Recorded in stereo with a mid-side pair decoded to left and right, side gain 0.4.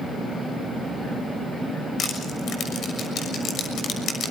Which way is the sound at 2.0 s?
70° left.